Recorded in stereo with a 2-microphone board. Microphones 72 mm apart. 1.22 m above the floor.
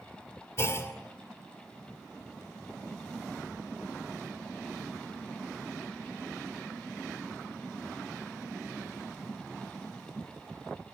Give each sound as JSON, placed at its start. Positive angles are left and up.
{"t": 0.6, "sound": "a clunk", "side_deg": 40, "distance_m": 2.0}